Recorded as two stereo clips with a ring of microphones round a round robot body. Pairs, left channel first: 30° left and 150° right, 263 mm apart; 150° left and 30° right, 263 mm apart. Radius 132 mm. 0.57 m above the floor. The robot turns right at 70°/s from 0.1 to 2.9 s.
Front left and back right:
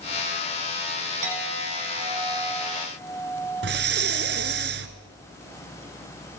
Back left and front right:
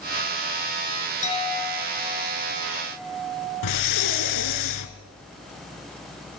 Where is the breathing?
160° left, 1.4 m.